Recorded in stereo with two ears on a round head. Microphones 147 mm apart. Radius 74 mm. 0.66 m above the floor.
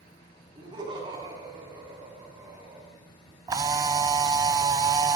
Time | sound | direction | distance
0.6 | laughter | 30° right (ahead or behind) | 5.5 m
3.5 | a camera shutter | 25° right (ahead or behind) | 0.8 m